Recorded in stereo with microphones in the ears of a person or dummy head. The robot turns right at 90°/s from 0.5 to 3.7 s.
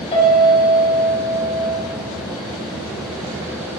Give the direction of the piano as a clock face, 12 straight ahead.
11 o'clock.